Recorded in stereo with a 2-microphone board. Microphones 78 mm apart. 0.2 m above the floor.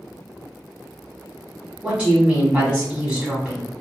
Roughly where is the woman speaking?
Centre.